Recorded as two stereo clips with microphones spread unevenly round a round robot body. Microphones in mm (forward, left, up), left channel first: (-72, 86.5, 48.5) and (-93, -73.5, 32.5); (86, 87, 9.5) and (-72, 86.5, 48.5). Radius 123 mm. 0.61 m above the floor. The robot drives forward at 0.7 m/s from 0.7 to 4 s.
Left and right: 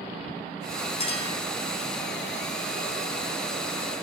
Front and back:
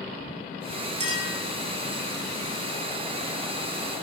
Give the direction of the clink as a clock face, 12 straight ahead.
8 o'clock.